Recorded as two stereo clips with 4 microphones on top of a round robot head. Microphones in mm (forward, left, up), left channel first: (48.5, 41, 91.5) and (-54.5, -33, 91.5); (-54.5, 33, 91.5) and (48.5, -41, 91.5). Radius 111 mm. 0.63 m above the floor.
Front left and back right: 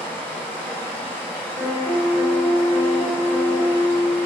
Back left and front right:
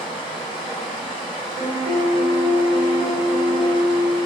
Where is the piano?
65° right, 1.3 m.